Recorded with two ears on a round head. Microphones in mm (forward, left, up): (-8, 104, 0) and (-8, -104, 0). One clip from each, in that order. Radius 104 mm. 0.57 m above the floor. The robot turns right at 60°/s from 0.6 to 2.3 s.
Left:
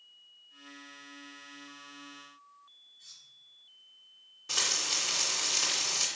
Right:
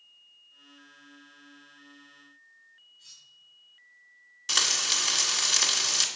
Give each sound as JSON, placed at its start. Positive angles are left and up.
{"t": 3.0, "sound": "cutlery clinking", "side_deg": 0, "distance_m": 3.5}
{"t": 4.5, "sound": "frying", "side_deg": -90, "distance_m": 1.7}